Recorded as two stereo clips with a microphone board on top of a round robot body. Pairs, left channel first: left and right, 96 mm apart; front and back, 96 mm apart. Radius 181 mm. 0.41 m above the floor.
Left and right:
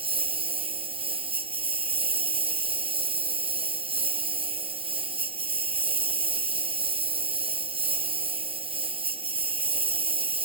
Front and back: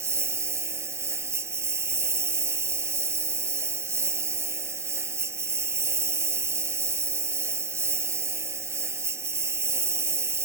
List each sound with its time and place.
0.0 s a lawn mower: 115° right